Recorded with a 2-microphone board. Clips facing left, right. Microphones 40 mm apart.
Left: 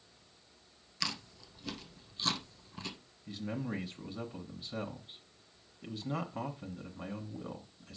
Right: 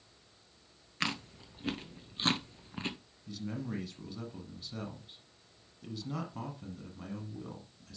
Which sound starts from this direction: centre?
A man speaking, at 3.3 s.